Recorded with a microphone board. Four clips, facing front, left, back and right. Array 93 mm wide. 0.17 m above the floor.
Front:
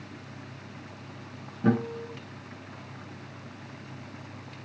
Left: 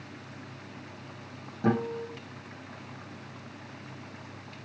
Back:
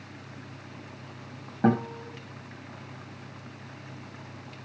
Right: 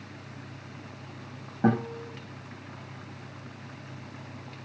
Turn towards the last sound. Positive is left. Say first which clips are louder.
# right 2 dB, back 1 dB
turn(degrees=-155)